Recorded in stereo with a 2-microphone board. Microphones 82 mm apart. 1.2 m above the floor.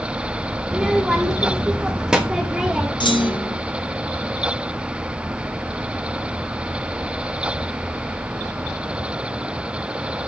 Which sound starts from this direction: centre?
A child speaking, at 0.7 s.